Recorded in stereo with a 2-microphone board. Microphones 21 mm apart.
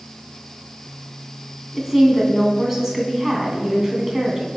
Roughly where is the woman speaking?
Centre.